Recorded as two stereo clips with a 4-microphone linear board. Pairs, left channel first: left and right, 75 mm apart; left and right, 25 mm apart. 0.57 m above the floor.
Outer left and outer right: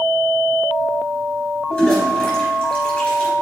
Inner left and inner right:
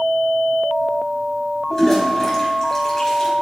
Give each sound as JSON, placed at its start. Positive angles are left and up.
{"t": 1.7, "sound": "a toilet flushing", "side_deg": 25, "distance_m": 3.5}